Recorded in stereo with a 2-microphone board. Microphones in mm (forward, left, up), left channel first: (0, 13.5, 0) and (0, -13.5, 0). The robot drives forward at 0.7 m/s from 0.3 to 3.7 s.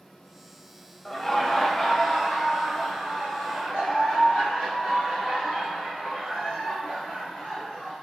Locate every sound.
1.1 s laughter: 10° left (ahead or behind), 0.6 m; by 7.9 s 5° left (ahead or behind), 1.6 m